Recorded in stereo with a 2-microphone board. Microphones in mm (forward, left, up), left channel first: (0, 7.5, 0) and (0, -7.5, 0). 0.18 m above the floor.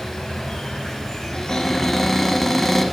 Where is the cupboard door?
15° left (ahead or behind), 1.1 m.